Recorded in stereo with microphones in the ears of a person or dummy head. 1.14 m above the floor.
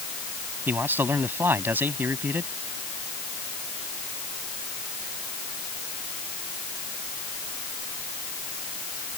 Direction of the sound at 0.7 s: 10° right (ahead or behind).